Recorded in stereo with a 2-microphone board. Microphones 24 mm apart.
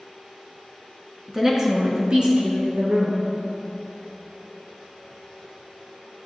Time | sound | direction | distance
1.3 | a woman speaking | 5° right (ahead or behind) | 2 m